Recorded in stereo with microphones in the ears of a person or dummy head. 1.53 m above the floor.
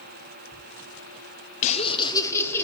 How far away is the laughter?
About 0.7 m.